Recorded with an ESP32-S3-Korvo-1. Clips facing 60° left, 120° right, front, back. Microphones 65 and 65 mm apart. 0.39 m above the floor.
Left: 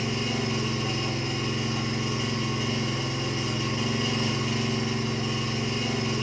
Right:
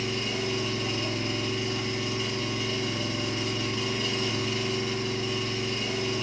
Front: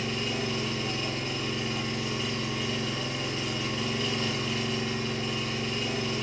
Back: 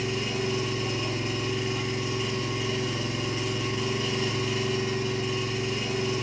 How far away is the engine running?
About 1.1 m.